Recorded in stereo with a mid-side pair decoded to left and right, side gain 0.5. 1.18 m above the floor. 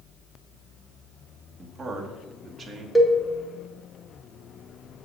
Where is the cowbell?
10° left, 1.8 m.